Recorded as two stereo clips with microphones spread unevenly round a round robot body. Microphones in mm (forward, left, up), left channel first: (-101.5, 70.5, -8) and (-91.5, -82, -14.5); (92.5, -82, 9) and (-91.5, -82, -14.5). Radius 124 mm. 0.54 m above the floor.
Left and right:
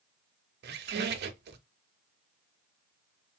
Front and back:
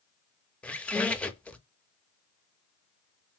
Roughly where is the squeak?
Right.